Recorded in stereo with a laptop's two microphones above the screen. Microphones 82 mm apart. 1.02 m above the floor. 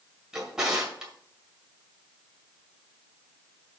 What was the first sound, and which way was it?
A drawer, 10° right (ahead or behind).